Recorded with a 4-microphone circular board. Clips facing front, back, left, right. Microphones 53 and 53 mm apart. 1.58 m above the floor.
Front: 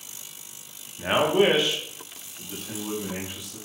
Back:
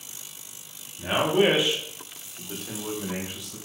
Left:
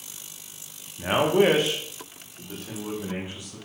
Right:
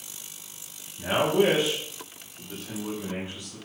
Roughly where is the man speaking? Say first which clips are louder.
Front 1 dB, left 2 dB; ahead left.